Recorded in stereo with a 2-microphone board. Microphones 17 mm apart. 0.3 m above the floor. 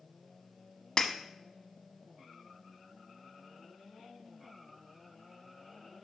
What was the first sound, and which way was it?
Breaking glass, 45° left (ahead or behind).